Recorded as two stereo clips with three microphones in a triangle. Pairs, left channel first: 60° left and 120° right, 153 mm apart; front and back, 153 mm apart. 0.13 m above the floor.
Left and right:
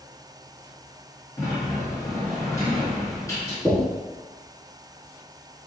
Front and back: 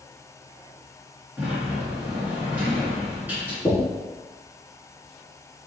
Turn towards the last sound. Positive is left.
turn(degrees=-30)